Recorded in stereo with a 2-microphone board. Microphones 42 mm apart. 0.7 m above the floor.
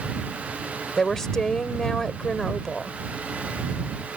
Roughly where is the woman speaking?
Centre.